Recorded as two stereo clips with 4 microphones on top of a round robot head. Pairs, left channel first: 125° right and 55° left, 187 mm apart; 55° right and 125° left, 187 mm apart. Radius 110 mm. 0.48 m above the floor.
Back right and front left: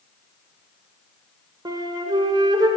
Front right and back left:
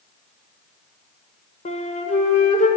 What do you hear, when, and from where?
1.6 s a flute: 10° right, 1.8 m